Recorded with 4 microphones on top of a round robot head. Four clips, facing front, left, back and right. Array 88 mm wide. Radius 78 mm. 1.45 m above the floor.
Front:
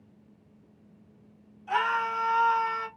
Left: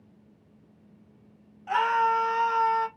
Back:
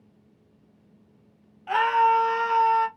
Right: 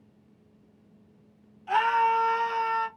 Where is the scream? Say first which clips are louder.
Right 1 dB, back 7 dB; 155° left, 2.5 m; by 2.9 s 170° left, 2.5 m.